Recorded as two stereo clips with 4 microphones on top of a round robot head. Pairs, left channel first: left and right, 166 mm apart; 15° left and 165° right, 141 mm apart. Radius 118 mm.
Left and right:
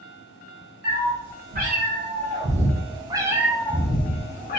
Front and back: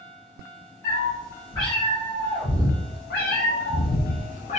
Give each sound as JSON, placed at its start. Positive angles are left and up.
{"t": 0.8, "sound": "a cat meowing", "azimuth_deg": -60, "distance_m": 1.7}